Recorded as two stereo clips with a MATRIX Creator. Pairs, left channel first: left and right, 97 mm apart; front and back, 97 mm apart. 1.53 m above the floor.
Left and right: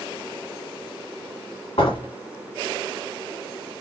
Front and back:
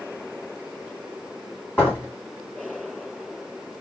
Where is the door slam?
70° left, 3 m.